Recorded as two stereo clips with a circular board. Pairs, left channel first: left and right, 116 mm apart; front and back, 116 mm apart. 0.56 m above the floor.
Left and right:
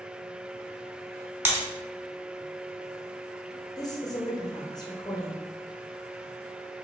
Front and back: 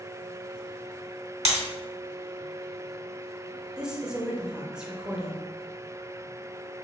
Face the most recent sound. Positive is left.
turn(degrees=105)